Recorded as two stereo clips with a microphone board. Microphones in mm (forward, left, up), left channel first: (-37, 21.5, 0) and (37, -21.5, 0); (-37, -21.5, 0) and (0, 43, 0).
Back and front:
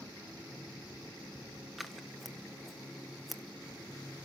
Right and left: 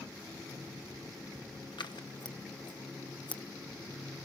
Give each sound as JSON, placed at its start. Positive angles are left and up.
{"t": 1.8, "sound": "scissors", "azimuth_deg": -120, "distance_m": 1.2}